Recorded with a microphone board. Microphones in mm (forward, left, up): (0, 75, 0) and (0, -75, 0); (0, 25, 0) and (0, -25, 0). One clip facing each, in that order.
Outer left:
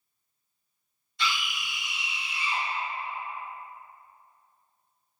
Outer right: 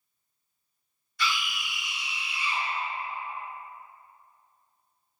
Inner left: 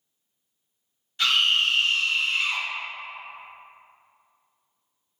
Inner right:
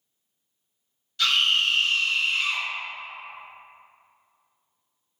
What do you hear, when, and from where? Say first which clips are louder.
1.2 s a scream: outer right 1 dB, even; 25° left (ahead or behind), 1.2 m